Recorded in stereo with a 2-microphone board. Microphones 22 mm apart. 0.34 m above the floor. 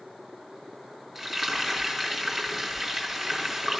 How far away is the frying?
About 4.5 m.